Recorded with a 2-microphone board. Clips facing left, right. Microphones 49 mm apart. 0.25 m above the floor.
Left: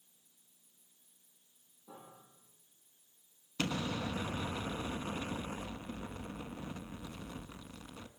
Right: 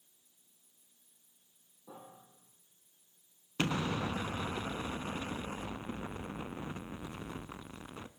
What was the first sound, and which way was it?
A piano, 60° right (ahead or behind).